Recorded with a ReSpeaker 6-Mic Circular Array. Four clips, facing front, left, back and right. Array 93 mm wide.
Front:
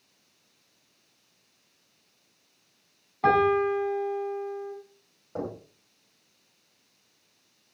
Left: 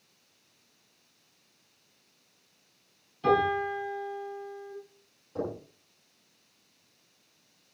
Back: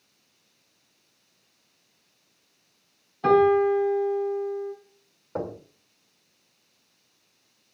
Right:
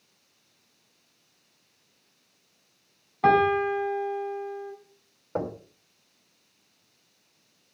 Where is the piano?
65° right, 5.5 m.